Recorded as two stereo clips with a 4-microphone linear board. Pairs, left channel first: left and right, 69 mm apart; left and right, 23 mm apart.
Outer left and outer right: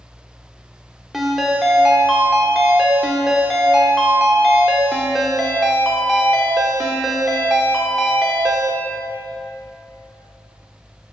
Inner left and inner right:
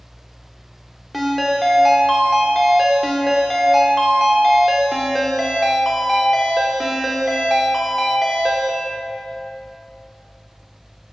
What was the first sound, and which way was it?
A ringtone, 5° right (ahead or behind).